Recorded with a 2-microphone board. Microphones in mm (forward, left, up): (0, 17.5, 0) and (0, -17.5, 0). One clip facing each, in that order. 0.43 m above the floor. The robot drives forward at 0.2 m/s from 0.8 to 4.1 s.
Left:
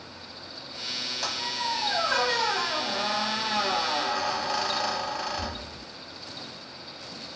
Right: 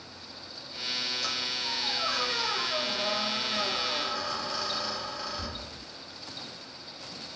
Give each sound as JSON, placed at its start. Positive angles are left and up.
{"t": 1.2, "sound": "a squeak", "side_deg": 75, "distance_m": 1.1}